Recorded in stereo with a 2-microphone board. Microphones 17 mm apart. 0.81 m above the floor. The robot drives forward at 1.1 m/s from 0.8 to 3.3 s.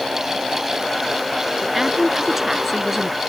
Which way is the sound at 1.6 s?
15° right (ahead or behind).